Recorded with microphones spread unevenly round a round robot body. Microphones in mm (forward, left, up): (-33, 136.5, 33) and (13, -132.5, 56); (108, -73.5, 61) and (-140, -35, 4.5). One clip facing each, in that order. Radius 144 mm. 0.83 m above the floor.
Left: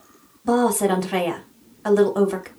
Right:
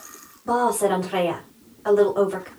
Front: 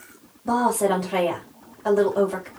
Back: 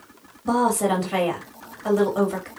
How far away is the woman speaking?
About 1.9 m.